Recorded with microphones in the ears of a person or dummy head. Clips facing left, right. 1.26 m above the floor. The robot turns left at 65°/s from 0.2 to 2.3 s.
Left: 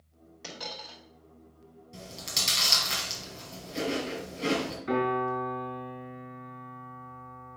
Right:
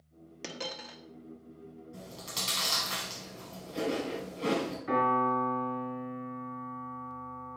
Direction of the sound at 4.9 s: 30° left (ahead or behind).